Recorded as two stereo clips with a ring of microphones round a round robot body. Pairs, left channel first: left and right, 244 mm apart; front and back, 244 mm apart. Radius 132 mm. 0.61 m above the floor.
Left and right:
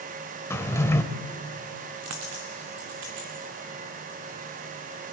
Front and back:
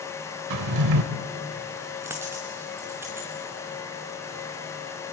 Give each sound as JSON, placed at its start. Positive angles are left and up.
{"t": 0.5, "sound": "a drawer", "azimuth_deg": 170, "distance_m": 1.1}
{"t": 2.0, "sound": "a dropped coin", "azimuth_deg": -100, "distance_m": 2.5}